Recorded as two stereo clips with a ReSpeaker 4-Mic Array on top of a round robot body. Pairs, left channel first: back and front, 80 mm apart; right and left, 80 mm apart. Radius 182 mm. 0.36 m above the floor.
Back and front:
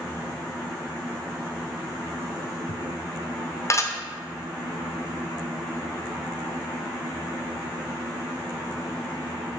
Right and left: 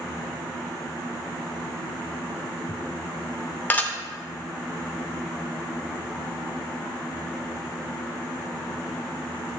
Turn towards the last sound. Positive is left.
turn(degrees=-150)